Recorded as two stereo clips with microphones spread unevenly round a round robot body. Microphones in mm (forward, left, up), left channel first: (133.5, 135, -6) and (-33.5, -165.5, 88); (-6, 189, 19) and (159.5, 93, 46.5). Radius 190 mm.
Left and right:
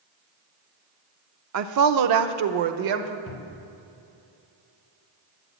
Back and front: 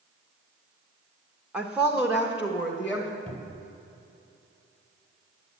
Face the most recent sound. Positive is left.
turn(degrees=30)